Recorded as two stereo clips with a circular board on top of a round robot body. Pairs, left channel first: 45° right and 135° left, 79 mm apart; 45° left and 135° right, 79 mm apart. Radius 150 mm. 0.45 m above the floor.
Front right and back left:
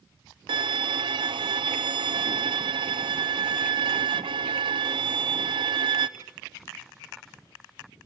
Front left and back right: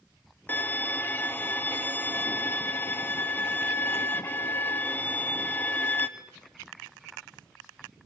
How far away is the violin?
About 0.8 m.